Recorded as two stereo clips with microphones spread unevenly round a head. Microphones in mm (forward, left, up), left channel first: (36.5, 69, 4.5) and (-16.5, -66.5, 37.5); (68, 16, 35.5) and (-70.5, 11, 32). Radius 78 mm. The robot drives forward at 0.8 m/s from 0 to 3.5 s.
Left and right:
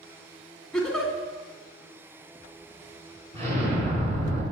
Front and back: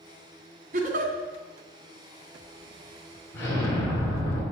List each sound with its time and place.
0.7 s a giggle: 170° left, 2 m
3.3 s an explosion: 70° right, 5.5 m; by 4.4 s 75° right, 5.5 m